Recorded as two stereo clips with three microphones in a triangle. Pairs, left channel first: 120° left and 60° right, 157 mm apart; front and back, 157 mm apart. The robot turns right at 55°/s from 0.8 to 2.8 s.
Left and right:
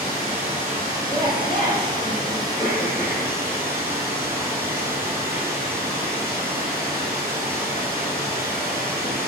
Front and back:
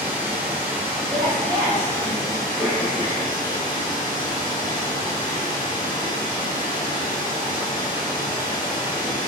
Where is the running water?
115° right, 1.2 m; by 9.3 s 5° right, 1.2 m.